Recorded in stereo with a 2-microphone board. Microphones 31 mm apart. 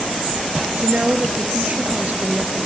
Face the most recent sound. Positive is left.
turn(degrees=-45)  # may be behind; listen again after turning